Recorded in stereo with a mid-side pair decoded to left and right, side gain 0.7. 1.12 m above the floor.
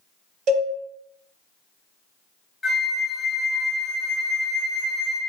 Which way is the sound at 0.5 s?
60° right.